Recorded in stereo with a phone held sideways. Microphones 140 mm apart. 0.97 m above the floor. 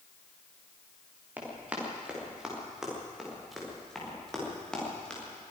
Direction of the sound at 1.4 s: 10° right (ahead or behind).